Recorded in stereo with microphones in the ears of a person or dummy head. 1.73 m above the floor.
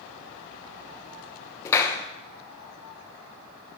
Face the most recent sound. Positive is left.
turn(degrees=15)  # may be behind; listen again after turning